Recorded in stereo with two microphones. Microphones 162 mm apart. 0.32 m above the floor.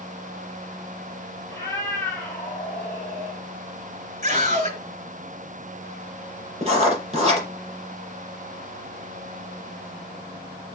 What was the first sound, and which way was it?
A cat meowing, 15° left (ahead or behind).